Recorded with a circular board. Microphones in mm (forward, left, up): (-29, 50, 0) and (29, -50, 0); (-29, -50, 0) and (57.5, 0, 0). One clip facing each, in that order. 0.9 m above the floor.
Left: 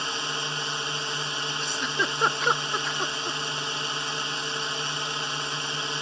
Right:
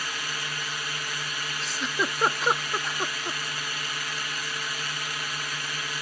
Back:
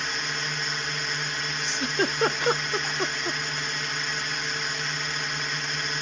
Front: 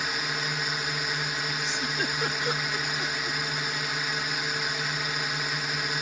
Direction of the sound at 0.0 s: 110° left.